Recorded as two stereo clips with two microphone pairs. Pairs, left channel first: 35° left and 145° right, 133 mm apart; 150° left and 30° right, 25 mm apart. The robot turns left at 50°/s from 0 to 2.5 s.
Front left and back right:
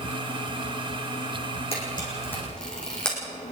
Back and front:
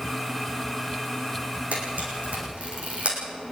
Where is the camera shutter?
5° right, 8 m; by 3.5 s 45° right, 8 m.